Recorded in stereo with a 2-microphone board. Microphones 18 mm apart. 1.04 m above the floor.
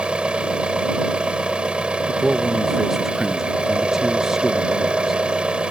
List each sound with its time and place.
0.0 s an engine running: 85° right
2.1 s a man speaking: 20° right (ahead or behind)